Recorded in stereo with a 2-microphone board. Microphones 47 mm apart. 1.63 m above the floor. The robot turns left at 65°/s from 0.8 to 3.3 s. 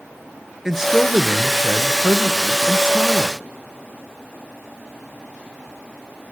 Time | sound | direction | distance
0.7 | a man speaking | 5° right | 1.1 m